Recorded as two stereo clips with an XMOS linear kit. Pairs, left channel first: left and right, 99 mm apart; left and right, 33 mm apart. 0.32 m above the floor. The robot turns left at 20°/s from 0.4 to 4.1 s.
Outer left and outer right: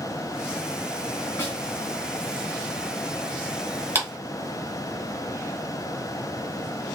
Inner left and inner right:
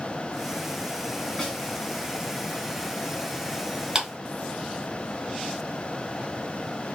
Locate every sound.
1.4 s a snare drum: 25° left (ahead or behind), 1.7 m; by 1.6 s 20° left (ahead or behind), 1.7 m
4.0 s a clap: 25° right (ahead or behind), 1.5 m; by 4.1 s 30° right (ahead or behind), 1.5 m